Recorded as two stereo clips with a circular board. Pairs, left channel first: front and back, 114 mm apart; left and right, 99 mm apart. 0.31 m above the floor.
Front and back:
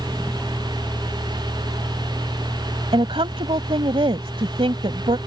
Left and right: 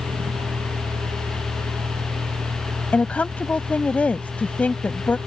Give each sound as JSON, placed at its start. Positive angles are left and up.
{"t": 0.0, "sound": "a vehicle", "azimuth_deg": -90}
{"t": 2.9, "sound": "a woman speaking", "azimuth_deg": 160}